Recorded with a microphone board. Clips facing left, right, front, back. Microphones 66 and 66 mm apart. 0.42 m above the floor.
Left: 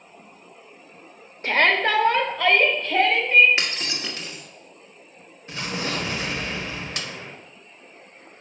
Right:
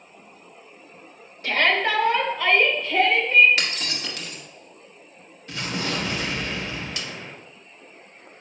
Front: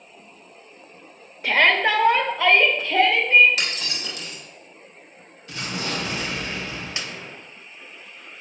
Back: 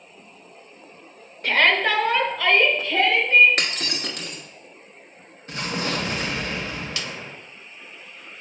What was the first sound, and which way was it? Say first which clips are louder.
A shout: left 2 dB, front 1 dB; 85° left.